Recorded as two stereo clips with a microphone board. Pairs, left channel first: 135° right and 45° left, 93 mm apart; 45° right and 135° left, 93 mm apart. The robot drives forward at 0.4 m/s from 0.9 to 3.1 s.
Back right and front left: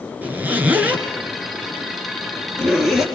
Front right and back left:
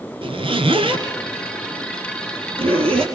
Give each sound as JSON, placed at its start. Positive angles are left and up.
{"t": 0.2, "sound": "a zipper", "azimuth_deg": 115, "distance_m": 2.5}